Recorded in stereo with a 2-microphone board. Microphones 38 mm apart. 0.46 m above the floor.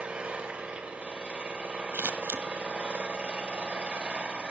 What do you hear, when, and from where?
0.0 s an engine running: 30° right (ahead or behind), 1.8 m
1.9 s scissors: 80° right, 0.7 m